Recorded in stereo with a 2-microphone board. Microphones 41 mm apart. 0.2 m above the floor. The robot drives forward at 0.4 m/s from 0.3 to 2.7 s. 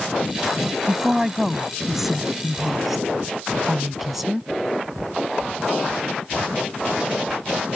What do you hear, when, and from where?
0.9 s a woman speaking: 5° right (ahead or behind)